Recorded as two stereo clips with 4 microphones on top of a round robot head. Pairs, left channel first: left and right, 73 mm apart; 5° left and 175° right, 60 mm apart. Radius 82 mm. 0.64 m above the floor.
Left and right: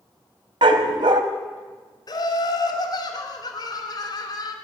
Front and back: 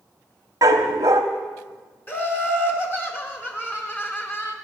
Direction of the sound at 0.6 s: 120° right.